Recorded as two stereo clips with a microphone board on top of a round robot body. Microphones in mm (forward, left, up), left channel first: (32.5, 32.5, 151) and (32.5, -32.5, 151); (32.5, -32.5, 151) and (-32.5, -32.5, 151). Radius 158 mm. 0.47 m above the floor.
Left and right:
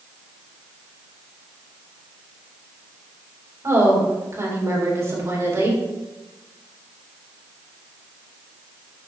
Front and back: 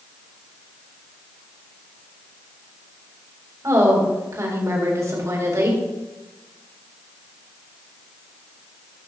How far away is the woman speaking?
About 4 m.